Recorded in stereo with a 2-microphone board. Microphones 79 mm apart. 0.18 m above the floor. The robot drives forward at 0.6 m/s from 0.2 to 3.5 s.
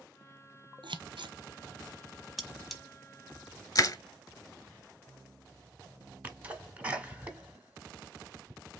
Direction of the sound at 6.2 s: 20° right (ahead or behind).